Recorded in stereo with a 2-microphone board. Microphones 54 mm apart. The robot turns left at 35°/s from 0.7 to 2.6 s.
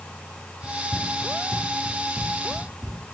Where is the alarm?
I don't hear an alarm.